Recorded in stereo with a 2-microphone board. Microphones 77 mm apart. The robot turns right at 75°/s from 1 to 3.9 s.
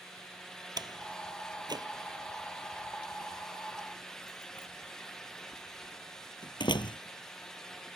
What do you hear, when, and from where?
0.8 s a door slam: 60° right (ahead or behind); by 7.0 s 80° left